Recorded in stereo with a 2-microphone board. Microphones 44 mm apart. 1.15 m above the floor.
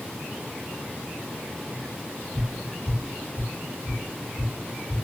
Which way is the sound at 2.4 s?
25° left (ahead or behind).